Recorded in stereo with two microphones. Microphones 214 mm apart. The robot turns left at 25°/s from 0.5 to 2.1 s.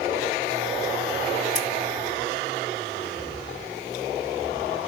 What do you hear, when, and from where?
1.6 s scissors: 65° left (ahead or behind), 2.5 m